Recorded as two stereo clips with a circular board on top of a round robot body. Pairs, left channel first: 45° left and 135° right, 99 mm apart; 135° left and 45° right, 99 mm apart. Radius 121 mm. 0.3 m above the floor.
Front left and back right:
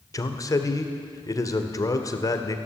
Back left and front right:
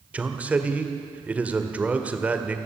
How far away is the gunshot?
No gunshot in this recording.